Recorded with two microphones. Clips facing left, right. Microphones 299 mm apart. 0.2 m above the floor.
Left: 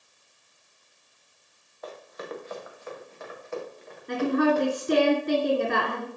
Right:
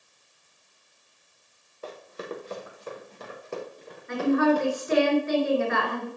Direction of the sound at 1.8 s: 35° right (ahead or behind).